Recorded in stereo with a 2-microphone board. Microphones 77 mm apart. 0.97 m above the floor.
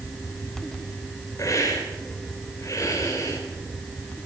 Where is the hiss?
45° left (ahead or behind), 4.5 m.